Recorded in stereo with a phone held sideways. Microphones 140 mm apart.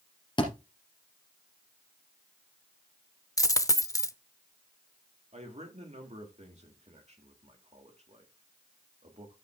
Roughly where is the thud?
Left.